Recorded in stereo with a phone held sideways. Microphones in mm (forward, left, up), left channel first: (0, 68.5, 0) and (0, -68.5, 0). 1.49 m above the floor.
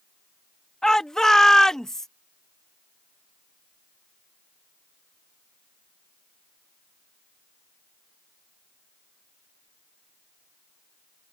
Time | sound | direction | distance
0.8 | a shout | 5° left (ahead or behind) | ?